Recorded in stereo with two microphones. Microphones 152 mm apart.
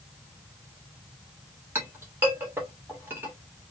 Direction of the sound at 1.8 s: 15° right (ahead or behind).